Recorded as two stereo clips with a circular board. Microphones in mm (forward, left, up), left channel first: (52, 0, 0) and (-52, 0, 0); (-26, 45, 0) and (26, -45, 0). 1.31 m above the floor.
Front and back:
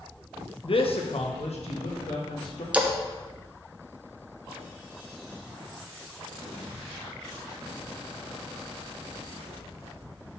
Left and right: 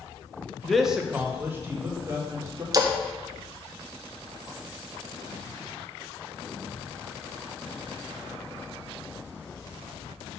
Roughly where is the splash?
Right.